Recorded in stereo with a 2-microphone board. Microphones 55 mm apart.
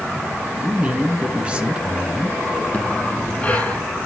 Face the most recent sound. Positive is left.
turn(degrees=25)  # may be behind; listen again after turning